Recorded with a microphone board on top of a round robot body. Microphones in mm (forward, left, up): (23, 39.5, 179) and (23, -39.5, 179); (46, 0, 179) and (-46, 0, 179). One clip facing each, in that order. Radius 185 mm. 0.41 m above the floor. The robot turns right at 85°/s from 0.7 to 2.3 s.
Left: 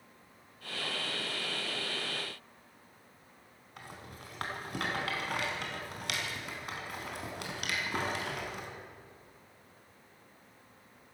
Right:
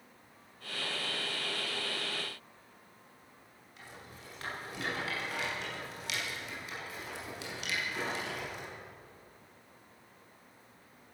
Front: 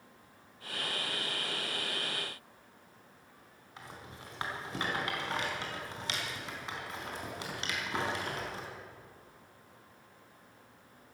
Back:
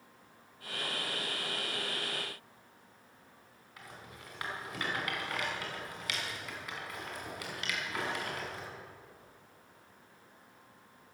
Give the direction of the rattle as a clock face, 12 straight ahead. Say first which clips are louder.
Left 3 dB, front 2 dB; 10 o'clock.